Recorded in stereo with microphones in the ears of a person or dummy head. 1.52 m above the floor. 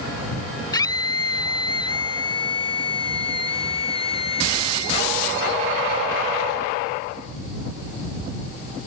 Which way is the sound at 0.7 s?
25° left (ahead or behind).